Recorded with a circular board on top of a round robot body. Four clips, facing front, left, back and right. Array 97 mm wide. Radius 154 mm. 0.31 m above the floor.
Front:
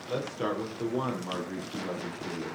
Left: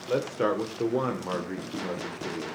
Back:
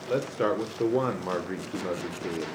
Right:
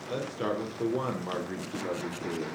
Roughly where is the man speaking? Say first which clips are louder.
Left 6 dB, back 5 dB; behind left.